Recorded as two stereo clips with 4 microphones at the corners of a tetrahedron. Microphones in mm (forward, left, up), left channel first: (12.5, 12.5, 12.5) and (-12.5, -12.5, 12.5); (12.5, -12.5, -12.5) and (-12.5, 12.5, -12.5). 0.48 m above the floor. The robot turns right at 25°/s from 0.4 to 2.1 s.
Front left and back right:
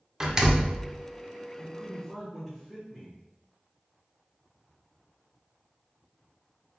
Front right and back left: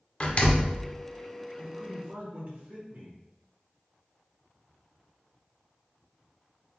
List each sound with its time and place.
0.2 s a door slam: 70° right, 0.8 m; by 0.8 s 60° right, 0.8 m
1.6 s a man speaking: 125° left, 1.2 m; by 3.2 s 140° left, 1.2 m